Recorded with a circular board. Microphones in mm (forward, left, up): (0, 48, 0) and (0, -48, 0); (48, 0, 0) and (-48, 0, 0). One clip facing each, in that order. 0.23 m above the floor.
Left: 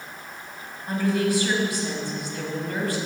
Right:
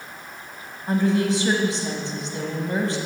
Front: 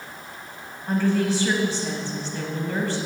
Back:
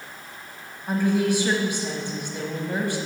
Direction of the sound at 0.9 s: 120° right.